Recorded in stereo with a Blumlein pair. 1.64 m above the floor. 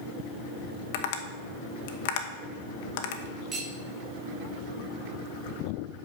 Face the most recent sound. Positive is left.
turn(degrees=-30)